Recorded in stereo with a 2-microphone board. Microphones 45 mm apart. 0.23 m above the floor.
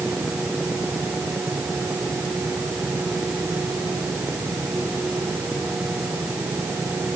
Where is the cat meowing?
I don't hear a cat meowing.